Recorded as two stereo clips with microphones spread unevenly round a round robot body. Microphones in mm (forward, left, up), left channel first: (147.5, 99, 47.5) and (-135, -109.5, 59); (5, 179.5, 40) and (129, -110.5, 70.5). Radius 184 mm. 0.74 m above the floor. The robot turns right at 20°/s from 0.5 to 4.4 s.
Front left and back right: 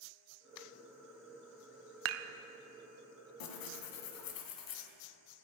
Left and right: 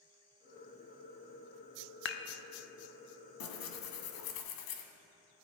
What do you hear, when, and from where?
2.0 s dishes clattering: 165° left, 0.5 m; by 2.3 s 170° left, 0.5 m
3.4 s tearing paper: 65° left, 1.4 m; by 4.8 s 85° left, 1.4 m